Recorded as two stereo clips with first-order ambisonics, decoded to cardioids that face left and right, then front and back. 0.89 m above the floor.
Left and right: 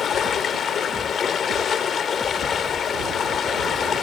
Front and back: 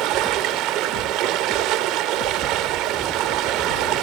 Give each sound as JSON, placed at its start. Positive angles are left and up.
{"t": 0.0, "sound": "running water", "azimuth_deg": 150, "distance_m": 1.1}